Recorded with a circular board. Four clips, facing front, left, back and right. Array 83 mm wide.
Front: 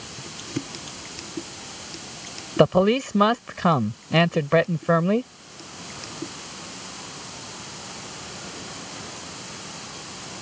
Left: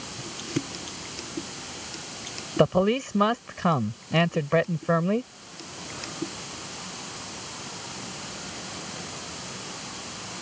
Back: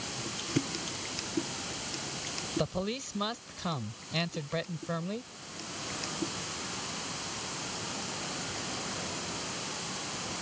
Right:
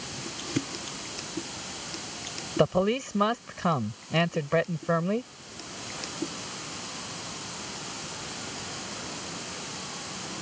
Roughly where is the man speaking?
Ahead.